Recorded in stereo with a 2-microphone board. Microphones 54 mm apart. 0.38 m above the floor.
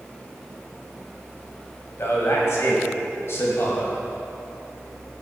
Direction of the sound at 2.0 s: 55° left (ahead or behind).